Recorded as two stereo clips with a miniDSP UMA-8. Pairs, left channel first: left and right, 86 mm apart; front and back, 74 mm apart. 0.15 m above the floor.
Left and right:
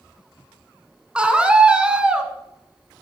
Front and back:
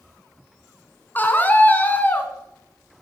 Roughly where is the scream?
Ahead right.